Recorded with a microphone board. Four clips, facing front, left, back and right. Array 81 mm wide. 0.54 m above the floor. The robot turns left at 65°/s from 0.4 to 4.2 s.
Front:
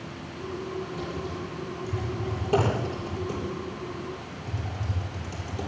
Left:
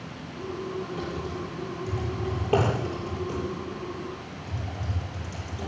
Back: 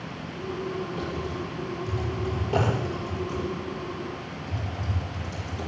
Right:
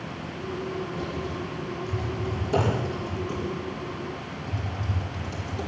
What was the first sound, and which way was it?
Typing on a keyboard, 175° left.